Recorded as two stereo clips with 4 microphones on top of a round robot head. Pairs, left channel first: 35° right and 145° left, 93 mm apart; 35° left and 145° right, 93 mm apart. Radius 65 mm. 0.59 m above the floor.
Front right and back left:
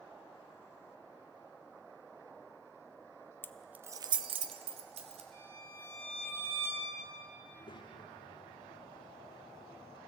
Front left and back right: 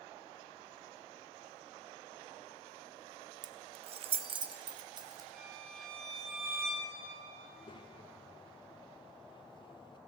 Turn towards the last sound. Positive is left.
turn(degrees=0)